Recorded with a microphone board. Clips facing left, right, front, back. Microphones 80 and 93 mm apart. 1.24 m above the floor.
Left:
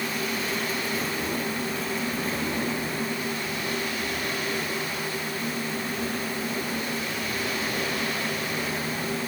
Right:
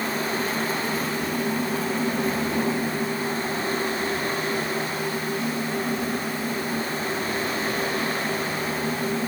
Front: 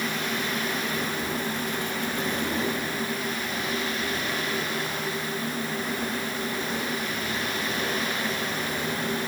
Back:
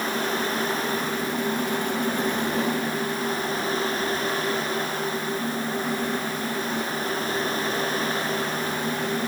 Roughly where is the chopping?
I don't hear chopping.